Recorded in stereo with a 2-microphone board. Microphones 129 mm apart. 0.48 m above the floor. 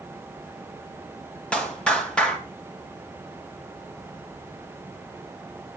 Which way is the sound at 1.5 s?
10° left (ahead or behind).